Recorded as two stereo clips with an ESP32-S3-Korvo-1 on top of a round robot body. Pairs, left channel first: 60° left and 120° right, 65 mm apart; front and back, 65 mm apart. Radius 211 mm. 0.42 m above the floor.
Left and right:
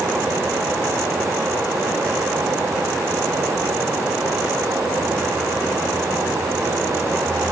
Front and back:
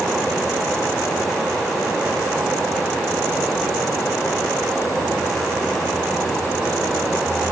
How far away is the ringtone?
No ringtone in this recording.